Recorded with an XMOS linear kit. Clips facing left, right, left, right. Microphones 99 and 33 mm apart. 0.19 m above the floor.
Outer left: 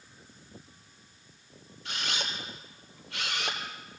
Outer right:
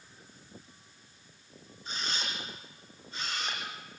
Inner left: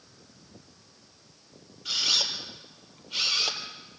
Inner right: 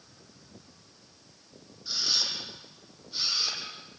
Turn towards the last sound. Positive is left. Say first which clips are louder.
# outer left 2 dB, inner left 4 dB
turn(degrees=75)  # may be behind; listen again after turning